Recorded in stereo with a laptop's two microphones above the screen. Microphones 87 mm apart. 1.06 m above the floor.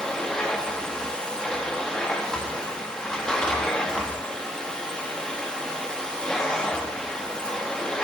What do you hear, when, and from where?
0.0 s a machine running: 10° left (ahead or behind), 1.2 m